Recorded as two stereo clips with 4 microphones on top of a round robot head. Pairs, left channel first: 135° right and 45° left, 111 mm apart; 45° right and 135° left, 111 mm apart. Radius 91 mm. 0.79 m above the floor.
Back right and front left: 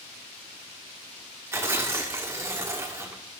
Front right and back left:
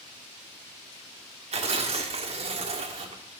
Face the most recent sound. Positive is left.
turn(degrees=110)